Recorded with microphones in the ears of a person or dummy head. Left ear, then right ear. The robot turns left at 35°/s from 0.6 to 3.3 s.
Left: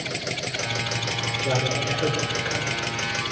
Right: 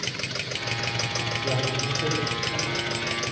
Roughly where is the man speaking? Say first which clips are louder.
Left 2 dB; left.